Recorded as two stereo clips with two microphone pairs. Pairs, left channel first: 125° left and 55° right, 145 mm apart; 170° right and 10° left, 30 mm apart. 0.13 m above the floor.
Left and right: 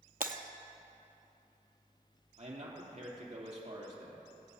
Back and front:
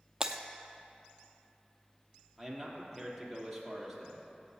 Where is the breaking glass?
60° right, 0.8 m.